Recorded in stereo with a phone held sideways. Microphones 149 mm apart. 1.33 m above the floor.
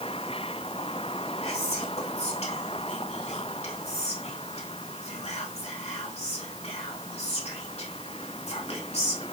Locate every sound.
1.4 s whispering: 45° left (ahead or behind), 2.5 m